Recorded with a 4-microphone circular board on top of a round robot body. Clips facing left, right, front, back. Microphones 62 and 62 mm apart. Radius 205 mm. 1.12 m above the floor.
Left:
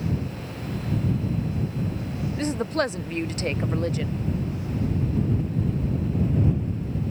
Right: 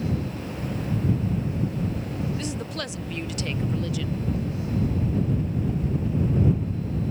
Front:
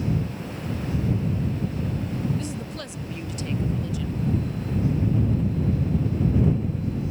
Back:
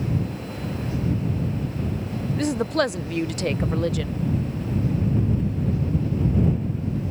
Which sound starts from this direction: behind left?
A woman speaking, at 2.4 s.